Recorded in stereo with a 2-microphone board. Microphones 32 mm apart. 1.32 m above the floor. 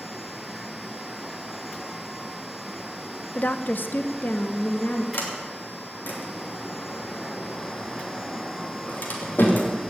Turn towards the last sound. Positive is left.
turn(degrees=80)